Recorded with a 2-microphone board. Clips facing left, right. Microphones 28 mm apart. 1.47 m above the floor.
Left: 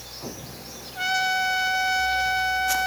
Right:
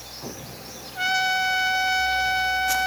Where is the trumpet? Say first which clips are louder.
Right 1 dB; 5° right (ahead or behind), 0.5 m.